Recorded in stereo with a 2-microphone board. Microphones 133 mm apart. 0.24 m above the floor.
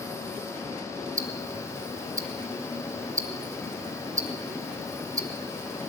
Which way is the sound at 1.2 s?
25° right (ahead or behind).